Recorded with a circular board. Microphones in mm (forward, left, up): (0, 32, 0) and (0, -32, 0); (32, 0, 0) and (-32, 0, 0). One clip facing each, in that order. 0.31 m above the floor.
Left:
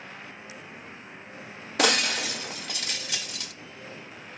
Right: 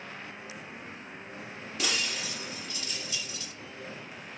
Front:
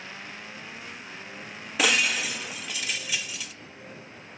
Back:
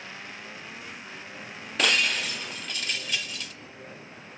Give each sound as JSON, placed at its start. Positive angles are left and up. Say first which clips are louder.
{"t": 1.8, "sound": "breaking glass", "louder": "left 9 dB, front 1 dB", "azimuth_deg": 85, "distance_m": 0.8}